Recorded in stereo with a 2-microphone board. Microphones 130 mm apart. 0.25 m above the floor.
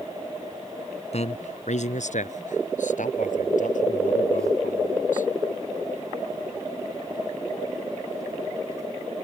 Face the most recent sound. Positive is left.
turn(degrees=80)